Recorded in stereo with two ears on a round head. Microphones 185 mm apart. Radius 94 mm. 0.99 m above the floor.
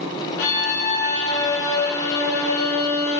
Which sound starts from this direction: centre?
A violin, at 0.4 s.